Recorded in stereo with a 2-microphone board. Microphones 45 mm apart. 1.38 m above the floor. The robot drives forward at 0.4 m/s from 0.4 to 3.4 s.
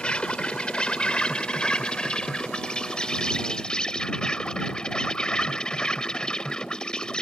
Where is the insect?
20° left (ahead or behind); by 7.2 s 15° left (ahead or behind).